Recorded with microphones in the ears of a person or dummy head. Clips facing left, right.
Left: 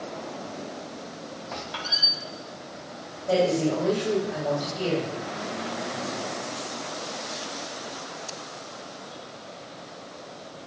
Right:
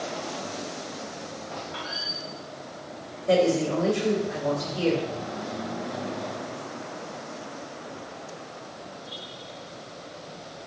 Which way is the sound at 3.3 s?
45° right (ahead or behind).